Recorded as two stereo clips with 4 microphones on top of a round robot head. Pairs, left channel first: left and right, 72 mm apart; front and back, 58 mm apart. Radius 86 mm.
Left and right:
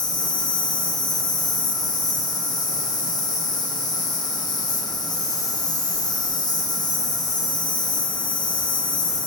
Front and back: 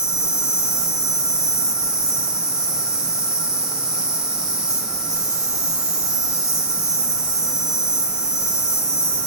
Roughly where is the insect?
Left.